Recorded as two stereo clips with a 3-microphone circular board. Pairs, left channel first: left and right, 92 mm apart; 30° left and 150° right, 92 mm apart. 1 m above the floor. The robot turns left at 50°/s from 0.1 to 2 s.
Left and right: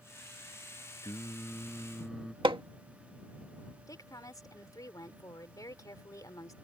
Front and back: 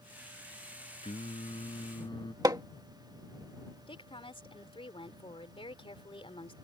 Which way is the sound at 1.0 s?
45° left.